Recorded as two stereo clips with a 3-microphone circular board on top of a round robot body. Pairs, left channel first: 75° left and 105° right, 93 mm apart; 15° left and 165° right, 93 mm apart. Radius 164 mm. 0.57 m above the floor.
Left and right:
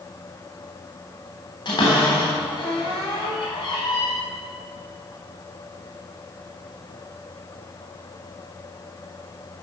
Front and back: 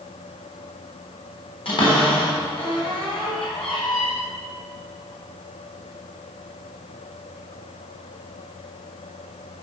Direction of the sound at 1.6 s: 35° left.